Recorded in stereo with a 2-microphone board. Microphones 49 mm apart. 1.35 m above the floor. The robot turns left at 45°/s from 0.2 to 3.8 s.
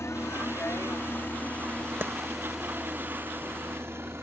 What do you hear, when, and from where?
0.0 s a helicopter: 70° left (ahead or behind); by 4.2 s 60° right (ahead or behind)
2.0 s a clap: 45° right (ahead or behind); by 2.1 s 50° right (ahead or behind)